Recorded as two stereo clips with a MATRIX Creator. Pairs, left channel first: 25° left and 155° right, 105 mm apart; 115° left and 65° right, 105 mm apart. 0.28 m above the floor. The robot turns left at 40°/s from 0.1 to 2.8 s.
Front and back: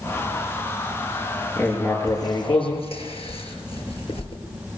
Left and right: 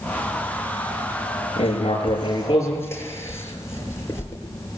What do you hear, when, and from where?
1.6 s writing: 95° left, 5 m; by 4.4 s 45° left, 5 m